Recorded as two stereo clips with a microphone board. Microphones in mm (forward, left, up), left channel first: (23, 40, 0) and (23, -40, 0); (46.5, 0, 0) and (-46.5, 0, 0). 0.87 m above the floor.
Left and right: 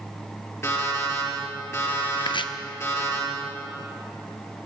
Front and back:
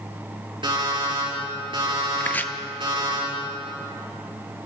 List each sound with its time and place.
0.6 s an alarm clock: 150° left, 6 m
2.2 s chopping: 70° left, 0.5 m